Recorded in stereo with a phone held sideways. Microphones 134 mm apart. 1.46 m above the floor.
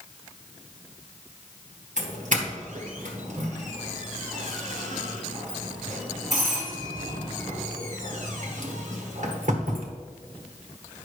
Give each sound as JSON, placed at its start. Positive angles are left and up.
{"t": 2.0, "sound": "a doorbell", "side_deg": -65, "distance_m": 1.4}